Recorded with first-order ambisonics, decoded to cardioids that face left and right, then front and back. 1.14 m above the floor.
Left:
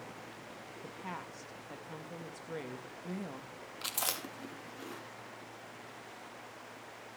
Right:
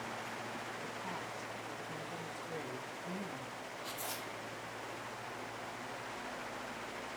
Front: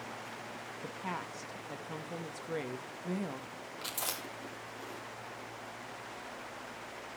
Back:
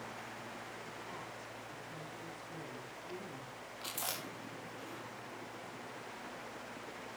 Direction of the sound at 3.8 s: 80° left.